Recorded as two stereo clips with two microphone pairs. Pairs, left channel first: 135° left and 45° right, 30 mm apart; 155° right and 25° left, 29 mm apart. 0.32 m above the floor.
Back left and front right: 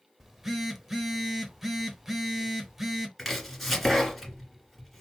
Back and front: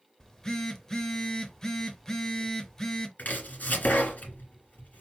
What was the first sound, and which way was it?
A phone buzzing, 115° right.